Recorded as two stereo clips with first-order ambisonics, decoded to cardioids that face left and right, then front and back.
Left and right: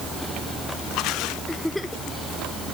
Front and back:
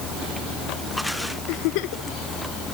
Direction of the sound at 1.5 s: 5° left.